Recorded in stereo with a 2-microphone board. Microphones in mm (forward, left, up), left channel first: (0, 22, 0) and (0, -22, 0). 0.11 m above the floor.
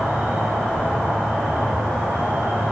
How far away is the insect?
About 7 m.